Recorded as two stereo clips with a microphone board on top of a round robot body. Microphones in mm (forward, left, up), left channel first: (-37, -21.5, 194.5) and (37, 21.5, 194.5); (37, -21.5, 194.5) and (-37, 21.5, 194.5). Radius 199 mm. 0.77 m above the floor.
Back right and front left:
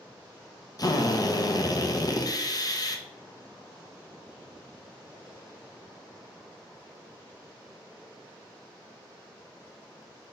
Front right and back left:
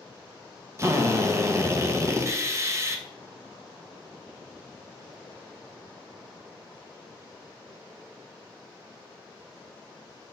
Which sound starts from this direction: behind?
A drill, at 0.8 s.